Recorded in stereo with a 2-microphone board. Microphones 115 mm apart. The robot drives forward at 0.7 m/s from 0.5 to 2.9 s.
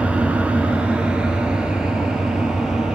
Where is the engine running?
10° right (ahead or behind), 1.8 m; by 3.0 s 5° right (ahead or behind), 3.5 m.